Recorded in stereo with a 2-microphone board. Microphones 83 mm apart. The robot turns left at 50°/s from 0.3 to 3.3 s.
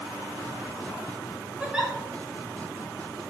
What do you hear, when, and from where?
1.6 s a giggle: 15° right (ahead or behind), 0.7 m; by 1.9 s centre (ahead or behind), 0.7 m